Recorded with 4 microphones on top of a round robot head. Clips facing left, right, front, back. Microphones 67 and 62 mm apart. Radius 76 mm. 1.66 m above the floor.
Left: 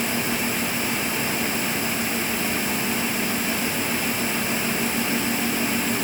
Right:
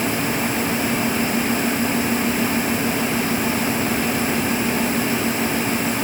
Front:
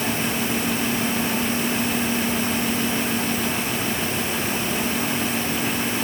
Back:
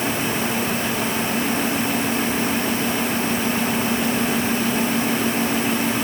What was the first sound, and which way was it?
Only background noise.